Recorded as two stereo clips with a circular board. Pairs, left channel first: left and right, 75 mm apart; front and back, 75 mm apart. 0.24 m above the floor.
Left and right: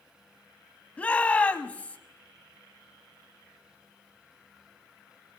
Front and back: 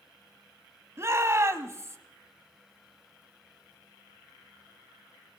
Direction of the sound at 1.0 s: 155° left.